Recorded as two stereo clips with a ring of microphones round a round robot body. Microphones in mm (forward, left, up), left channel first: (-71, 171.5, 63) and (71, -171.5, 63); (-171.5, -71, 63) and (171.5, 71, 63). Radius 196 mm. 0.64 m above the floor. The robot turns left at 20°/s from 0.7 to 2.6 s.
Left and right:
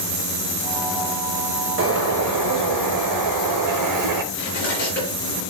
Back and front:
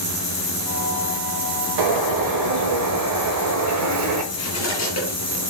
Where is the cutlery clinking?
170° left, 5 m.